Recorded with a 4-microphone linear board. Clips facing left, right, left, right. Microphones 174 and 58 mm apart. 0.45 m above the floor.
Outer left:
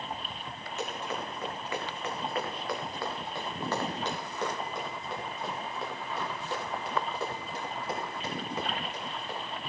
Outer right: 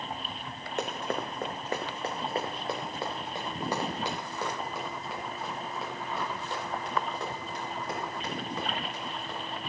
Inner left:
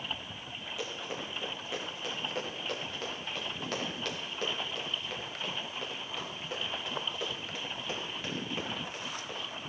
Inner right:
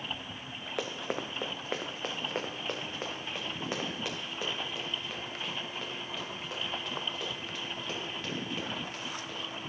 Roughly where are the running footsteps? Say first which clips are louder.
Outer right 3 dB, inner right 5 dB; right.